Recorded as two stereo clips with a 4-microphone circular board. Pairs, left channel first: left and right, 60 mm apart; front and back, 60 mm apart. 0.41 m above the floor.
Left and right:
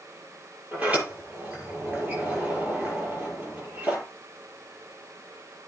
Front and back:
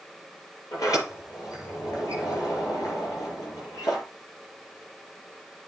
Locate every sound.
0.7 s a sliding door: 25° right, 6.5 m